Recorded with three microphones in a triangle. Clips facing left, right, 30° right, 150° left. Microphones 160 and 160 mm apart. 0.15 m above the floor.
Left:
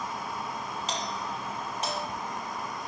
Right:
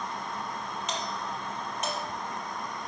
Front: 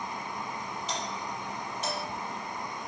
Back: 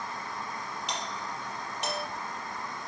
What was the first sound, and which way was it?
A doorbell, 145° left.